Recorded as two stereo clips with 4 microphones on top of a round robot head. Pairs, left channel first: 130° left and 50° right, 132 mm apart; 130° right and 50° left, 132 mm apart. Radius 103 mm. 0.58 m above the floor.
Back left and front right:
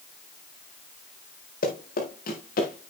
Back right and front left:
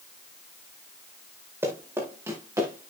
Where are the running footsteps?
120° left, 5.5 m; by 2.9 s 115° left, 4.5 m.